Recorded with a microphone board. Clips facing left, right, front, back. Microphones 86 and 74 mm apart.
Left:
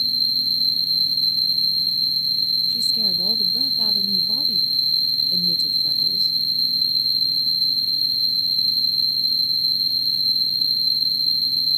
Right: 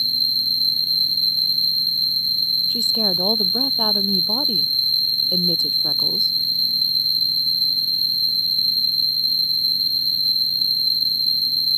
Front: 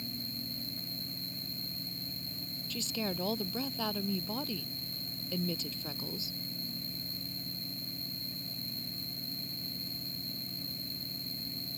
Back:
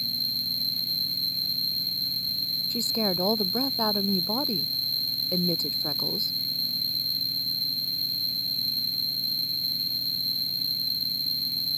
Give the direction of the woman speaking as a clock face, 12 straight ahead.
4 o'clock.